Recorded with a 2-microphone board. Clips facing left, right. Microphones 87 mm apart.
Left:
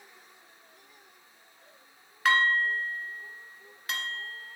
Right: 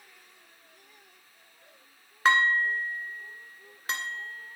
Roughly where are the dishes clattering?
Right.